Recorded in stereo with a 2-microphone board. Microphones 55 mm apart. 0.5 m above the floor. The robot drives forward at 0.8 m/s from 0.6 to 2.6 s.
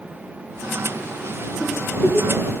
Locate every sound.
1.6 s a giggle: 25° left (ahead or behind), 9.5 m; by 2.4 s 20° left (ahead or behind), 10 m